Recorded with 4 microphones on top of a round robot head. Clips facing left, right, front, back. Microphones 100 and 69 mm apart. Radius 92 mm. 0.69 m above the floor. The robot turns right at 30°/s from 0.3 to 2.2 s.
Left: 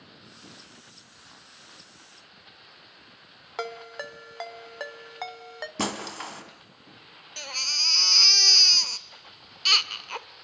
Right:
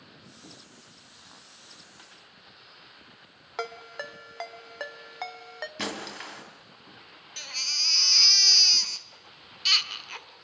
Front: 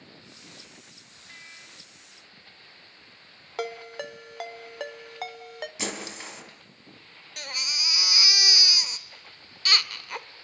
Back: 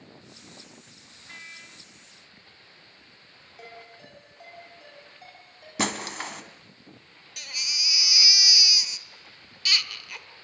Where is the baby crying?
45° left, 1.6 m.